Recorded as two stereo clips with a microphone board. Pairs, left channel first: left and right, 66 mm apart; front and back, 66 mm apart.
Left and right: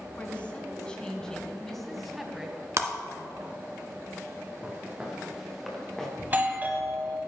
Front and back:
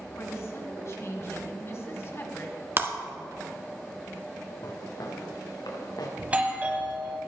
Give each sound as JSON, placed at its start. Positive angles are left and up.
{"t": 0.2, "sound": "a woman speaking", "azimuth_deg": 30, "distance_m": 2.5}
{"t": 2.8, "sound": "breaking glass", "azimuth_deg": -130, "distance_m": 1.4}
{"t": 4.6, "sound": "footsteps", "azimuth_deg": -20, "distance_m": 4.0}
{"t": 6.2, "sound": "a doorbell", "azimuth_deg": -130, "distance_m": 1.6}